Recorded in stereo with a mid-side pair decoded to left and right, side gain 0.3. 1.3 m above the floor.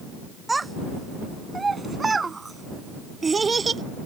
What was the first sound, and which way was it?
A child speaking, 30° right.